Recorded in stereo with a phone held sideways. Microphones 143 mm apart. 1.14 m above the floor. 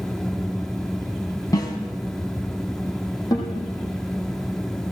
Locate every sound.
0.0 s a fan: 5° left (ahead or behind), 0.7 m
1.5 s a snare drum: 25° left (ahead or behind), 4 m
3.3 s a guitar: 25° left (ahead or behind), 8 m